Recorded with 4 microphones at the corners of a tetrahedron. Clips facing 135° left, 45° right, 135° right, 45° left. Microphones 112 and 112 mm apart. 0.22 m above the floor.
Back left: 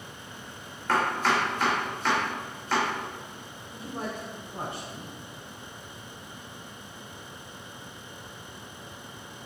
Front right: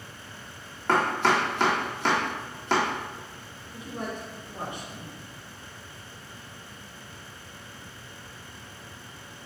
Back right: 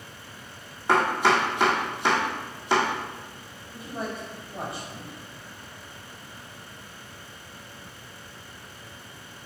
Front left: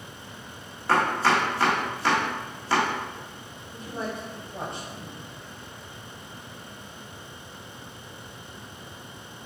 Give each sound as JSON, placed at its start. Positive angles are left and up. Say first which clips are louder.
{"t": 0.9, "sound": "chopping", "louder": "front right 2 dB, back right 1 dB", "azimuth_deg": -60, "distance_m": 1.5}
{"t": 3.7, "sound": "a man speaking", "louder": "even, even", "azimuth_deg": 145, "distance_m": 1.2}